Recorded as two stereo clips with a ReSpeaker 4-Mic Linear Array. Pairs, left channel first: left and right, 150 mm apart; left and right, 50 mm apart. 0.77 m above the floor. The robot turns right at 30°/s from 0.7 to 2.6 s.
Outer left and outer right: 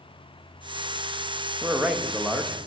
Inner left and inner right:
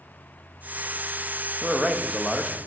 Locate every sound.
1.6 s a man speaking: 10° right (ahead or behind), 0.5 m; by 2.6 s 5° left (ahead or behind), 0.5 m